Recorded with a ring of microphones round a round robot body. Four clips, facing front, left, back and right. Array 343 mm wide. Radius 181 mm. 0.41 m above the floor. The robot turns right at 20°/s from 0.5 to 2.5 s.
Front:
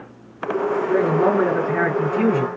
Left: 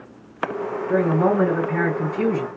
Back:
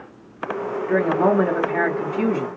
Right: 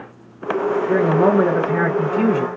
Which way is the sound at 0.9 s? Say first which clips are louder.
Right 2 dB, back 1 dB; 100° right.